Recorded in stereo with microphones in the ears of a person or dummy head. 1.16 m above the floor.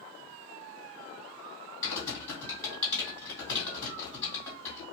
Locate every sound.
1.8 s typing on a keyboard: 20° left (ahead or behind), 2 m